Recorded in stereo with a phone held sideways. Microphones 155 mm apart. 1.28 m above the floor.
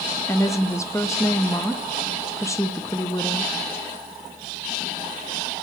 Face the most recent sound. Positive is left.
turn(degrees=20)  # may be behind; listen again after turning